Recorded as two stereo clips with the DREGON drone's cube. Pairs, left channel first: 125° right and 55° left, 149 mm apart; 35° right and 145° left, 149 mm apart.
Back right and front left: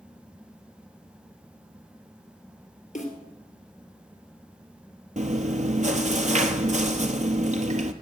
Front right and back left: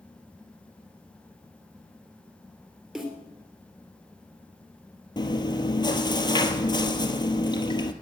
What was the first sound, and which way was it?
A snare drum, 130° right.